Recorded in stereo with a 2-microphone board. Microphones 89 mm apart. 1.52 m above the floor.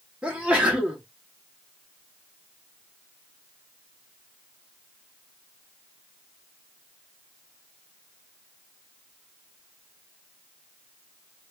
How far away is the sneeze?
About 1.0 m.